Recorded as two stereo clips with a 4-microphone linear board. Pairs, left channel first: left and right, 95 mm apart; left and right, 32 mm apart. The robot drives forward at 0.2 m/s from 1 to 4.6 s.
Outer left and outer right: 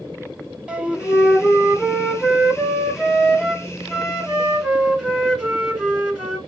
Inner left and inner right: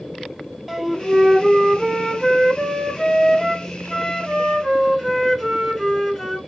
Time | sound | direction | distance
0.7 | a flute | 10° right (ahead or behind) | 1.1 m